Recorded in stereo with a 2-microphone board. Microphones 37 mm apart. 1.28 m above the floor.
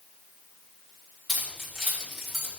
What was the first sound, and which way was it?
Keys jangling, centre (ahead or behind).